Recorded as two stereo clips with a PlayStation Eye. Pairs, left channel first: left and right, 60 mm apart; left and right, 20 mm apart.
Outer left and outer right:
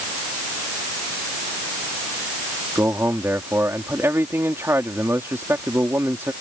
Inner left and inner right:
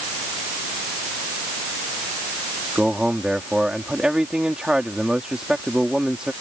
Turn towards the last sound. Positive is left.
turn(degrees=-40)  # may be behind; listen again after turning